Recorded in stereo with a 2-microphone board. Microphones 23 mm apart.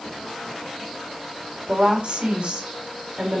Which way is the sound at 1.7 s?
45° right (ahead or behind).